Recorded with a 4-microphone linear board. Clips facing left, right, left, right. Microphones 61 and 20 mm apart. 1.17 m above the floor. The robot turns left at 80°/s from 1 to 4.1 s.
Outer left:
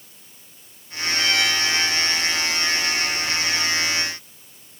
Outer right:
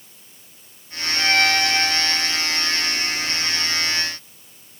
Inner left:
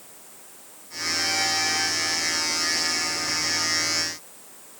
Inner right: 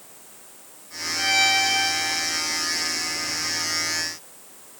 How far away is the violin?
About 2.5 m.